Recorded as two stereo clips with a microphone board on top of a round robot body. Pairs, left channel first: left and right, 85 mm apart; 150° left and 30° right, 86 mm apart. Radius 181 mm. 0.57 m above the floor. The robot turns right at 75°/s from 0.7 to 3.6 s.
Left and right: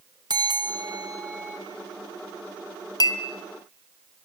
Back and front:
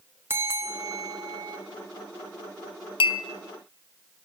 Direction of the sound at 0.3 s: 85° right.